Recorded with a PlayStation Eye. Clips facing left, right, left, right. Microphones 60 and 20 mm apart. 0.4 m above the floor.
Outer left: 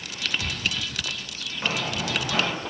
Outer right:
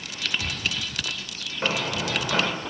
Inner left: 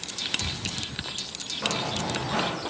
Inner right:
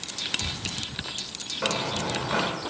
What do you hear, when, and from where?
1.6 s running footsteps: 50° right (ahead or behind), 3 m